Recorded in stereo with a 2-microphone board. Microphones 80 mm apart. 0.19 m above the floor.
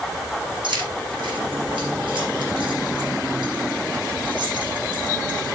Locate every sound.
0.6 s keys jangling: 70° right (ahead or behind), 6 m